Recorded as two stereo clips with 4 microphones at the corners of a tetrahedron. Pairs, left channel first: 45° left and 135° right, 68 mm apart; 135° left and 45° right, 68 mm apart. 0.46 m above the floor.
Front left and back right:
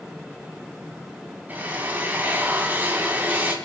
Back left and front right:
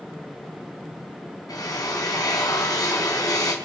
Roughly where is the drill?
Behind.